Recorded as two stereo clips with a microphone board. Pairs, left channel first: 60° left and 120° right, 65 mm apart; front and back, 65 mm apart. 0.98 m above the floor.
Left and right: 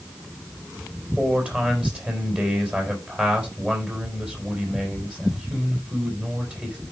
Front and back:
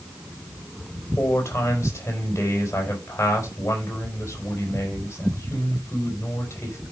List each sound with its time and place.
1.2 s a man speaking: 50° right, 4 m